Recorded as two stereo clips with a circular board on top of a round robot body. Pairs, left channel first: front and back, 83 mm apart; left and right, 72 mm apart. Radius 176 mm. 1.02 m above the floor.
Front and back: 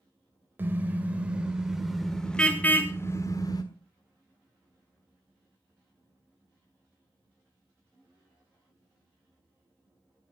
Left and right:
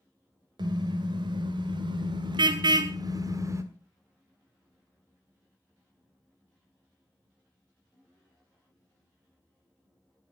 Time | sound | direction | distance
0.6 | a car horn | 110° right | 2 m